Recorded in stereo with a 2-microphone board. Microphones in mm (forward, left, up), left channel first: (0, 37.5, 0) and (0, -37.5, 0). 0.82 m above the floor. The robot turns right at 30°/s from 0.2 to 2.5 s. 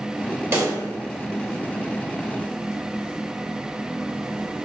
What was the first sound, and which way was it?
A pop, 30° right (ahead or behind).